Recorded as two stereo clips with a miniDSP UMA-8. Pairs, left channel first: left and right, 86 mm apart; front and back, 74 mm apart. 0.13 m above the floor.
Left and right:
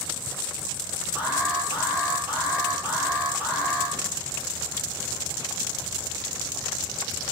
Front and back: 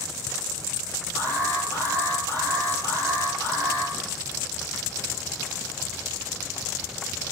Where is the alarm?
155° right, 3.5 m.